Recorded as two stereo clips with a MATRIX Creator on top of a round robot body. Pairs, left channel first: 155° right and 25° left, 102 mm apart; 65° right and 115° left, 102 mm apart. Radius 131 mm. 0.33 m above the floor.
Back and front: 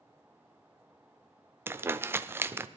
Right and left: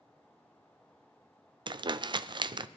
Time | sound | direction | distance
1.7 | crumpling | 85° left | 0.6 m